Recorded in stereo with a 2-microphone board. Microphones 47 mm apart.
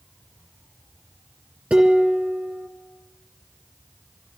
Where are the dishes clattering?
20° right (ahead or behind), 2 m.